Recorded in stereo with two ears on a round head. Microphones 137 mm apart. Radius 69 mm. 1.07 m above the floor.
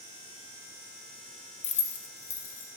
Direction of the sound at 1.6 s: 40° left (ahead or behind).